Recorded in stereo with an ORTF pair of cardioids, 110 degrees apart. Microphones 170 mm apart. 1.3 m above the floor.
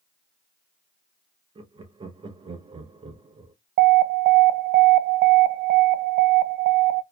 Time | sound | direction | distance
1.6 | laughter | 30° right | 1.0 m
3.8 | an alarm | 65° right | 0.5 m